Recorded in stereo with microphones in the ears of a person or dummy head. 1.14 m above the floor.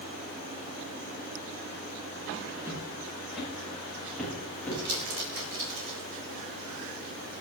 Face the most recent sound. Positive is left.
turn(degrees=-65)  # may be behind; listen again after turning